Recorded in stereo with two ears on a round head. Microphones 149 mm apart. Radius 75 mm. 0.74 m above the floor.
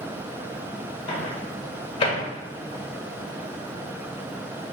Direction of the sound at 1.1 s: 35° left (ahead or behind).